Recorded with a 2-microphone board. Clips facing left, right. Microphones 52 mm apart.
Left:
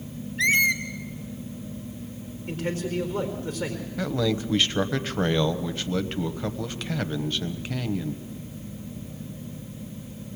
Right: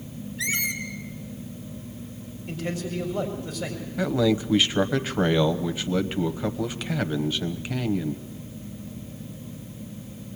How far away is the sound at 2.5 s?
About 4 m.